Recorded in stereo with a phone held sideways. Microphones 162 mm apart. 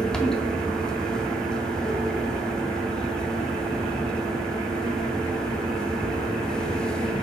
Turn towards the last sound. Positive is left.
turn(degrees=5)  # may be behind; listen again after turning